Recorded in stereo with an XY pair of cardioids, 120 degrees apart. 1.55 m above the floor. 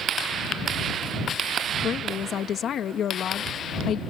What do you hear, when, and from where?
1.8 s a woman speaking: 55° left